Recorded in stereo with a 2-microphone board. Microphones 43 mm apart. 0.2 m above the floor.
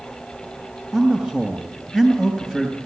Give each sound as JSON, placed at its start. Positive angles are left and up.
{"t": 0.9, "sound": "a man speaking", "side_deg": -15, "distance_m": 3.0}